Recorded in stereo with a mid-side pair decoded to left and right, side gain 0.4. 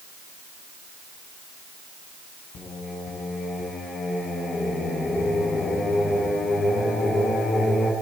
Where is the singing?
65° left, 5 m.